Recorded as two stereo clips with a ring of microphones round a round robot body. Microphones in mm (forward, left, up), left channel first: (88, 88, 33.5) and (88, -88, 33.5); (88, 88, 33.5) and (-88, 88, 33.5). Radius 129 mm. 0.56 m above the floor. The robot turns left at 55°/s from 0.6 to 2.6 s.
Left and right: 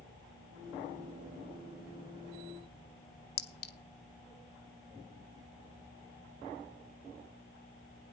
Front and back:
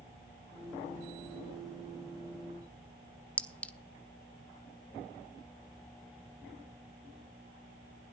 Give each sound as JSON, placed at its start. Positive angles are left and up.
{"t": 3.4, "sound": "a clink", "azimuth_deg": 80, "distance_m": 1.4}